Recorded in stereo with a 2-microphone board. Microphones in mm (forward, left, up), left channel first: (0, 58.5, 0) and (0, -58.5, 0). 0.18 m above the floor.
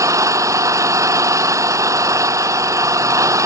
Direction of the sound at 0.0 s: 25° right (ahead or behind).